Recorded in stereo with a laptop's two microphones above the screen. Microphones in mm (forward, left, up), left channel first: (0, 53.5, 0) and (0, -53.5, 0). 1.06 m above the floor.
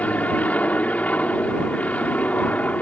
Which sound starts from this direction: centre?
An aircraft, at 0.0 s.